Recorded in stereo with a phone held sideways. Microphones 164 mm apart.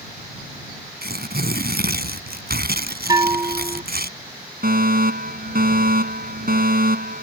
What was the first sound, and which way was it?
Tearing paper, 75° right (ahead or behind).